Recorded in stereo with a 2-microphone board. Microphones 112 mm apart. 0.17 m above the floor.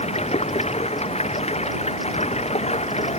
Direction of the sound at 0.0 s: 70° left (ahead or behind).